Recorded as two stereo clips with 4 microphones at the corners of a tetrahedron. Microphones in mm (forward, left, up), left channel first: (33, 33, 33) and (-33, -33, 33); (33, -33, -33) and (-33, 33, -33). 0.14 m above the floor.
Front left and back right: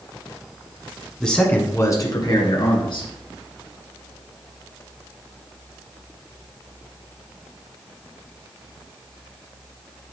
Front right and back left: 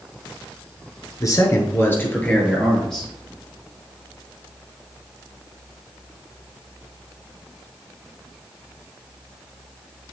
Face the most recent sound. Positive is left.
turn(degrees=40)